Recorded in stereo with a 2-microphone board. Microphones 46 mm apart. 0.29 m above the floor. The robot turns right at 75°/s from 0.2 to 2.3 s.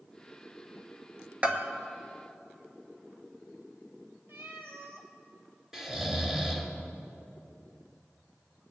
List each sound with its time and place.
1.4 s a bell: 25° right (ahead or behind), 1.0 m; by 1.7 s 45° right (ahead or behind), 1.0 m
4.3 s a cat meowing: 60° right (ahead or behind), 1.6 m
5.7 s snoring: 10° right (ahead or behind), 1.7 m